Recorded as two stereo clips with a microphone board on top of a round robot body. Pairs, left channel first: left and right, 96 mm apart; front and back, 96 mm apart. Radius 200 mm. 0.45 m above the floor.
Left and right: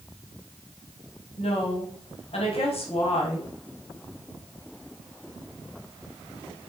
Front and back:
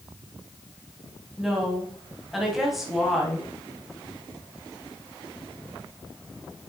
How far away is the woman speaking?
About 3.5 m.